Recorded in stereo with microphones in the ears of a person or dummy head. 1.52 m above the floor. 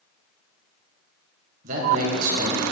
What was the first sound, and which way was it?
A man speaking, 45° right (ahead or behind).